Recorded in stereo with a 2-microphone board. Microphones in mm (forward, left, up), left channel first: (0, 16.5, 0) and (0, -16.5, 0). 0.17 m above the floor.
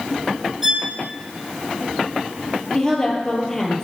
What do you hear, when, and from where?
0.6 s a violin: 5° right (ahead or behind), 2.5 m
2.7 s a woman speaking: 15° left (ahead or behind), 3.5 m